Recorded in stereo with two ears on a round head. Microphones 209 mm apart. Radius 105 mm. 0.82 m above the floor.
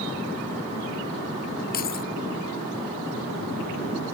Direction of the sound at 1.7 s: 45° left (ahead or behind).